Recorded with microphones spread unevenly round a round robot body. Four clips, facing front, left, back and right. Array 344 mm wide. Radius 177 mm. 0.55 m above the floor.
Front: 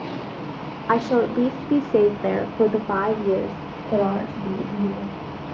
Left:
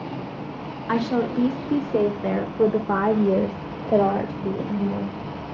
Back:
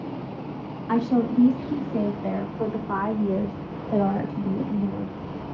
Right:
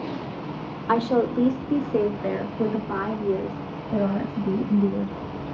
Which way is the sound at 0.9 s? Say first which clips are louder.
Right 2 dB, front 3 dB; 20° right.